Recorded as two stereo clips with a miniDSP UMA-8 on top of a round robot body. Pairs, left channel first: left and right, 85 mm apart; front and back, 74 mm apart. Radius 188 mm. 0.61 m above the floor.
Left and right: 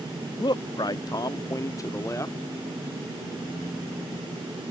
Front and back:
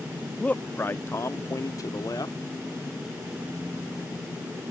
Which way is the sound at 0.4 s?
70° left.